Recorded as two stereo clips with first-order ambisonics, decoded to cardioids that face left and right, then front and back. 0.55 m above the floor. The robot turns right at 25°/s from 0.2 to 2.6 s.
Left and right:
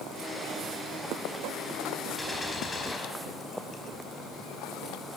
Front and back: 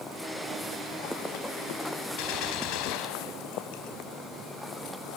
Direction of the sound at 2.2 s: 5° left.